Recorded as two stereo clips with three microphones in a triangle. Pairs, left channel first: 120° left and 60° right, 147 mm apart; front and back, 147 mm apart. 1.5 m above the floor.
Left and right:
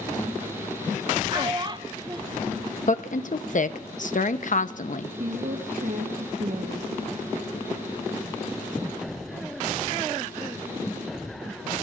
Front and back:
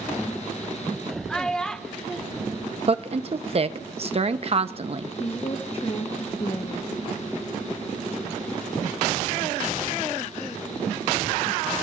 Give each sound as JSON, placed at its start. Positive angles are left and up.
{"t": 1.3, "sound": "a child speaking", "azimuth_deg": -85, "distance_m": 0.7}
{"t": 2.9, "sound": "a woman speaking", "azimuth_deg": 140, "distance_m": 0.8}
{"t": 5.2, "sound": "a woman speaking", "azimuth_deg": -50, "distance_m": 1.3}